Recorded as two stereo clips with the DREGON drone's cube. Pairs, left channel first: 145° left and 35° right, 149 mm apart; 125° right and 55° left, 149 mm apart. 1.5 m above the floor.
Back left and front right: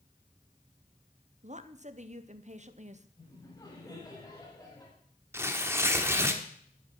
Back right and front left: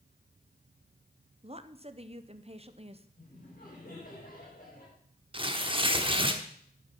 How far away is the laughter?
About 5.5 m.